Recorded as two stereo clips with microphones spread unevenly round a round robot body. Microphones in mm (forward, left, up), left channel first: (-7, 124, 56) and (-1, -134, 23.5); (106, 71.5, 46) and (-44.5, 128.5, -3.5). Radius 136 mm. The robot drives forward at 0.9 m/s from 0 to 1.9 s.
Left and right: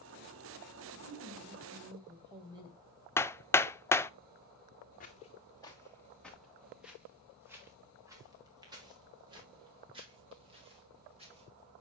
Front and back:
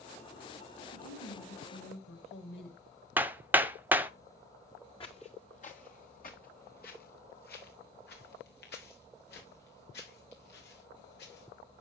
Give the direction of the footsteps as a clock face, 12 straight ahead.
11 o'clock.